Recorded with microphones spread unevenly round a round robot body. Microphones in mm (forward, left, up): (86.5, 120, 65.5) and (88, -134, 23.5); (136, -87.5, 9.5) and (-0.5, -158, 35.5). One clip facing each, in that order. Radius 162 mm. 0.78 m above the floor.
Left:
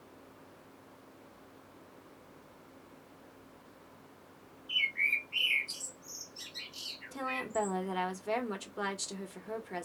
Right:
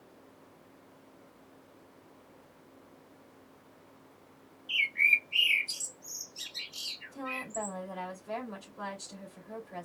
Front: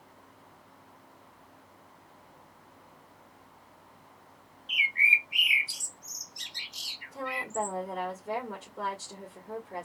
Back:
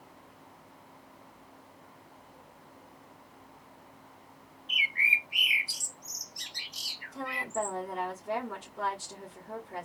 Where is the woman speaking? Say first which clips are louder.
Left 3 dB, front 1 dB; 100° left, 1.9 m.